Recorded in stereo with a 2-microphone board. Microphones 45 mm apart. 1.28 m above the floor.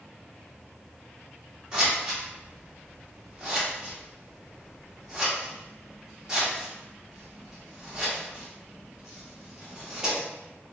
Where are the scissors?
15° right (ahead or behind), 0.8 m.